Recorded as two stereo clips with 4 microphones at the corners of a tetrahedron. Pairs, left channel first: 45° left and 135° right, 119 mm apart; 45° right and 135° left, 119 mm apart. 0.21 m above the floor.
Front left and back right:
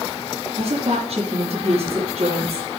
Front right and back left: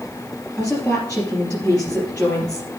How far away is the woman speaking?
About 3 m.